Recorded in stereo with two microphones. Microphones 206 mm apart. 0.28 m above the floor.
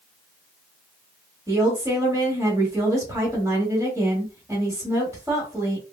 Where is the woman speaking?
15° right (ahead or behind), 1.3 m.